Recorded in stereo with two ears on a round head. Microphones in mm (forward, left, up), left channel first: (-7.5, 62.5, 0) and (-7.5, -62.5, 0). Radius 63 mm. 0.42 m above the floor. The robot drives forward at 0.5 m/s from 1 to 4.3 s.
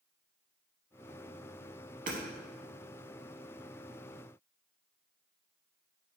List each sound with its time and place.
2.1 s hammering: 60° right (ahead or behind), 0.9 m; by 2.2 s 65° right (ahead or behind), 0.9 m